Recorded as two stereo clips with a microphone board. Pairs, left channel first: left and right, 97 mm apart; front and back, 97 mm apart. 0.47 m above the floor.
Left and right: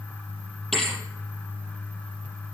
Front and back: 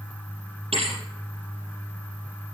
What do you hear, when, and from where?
0.7 s a thud: 175° left, 6 m